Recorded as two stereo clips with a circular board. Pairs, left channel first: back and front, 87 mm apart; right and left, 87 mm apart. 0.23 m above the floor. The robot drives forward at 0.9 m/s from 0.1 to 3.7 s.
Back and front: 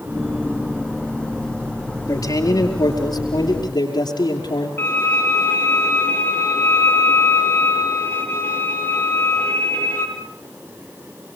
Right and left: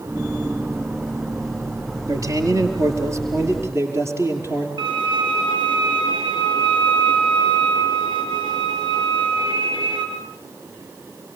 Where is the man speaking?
135° left, 4.5 m; by 4.7 s 150° left, 5.5 m.